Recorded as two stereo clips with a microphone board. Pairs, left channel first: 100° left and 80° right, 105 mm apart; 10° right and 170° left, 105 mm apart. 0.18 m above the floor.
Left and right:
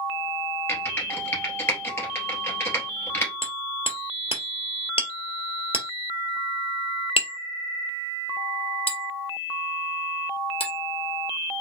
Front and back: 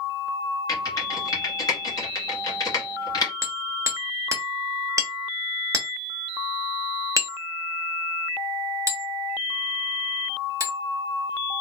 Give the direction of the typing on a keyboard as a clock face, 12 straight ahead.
11 o'clock.